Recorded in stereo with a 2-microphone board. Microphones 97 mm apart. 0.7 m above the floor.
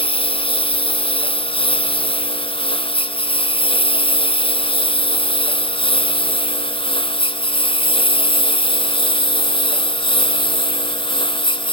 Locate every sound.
0.0 s a lawn mower: 85° left; by 11.7 s 70° left (ahead or behind)